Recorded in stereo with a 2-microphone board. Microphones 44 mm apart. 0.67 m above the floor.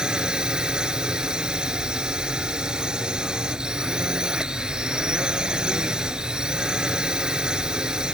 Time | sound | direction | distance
0.0 | a drone | 20° right (ahead or behind) | ?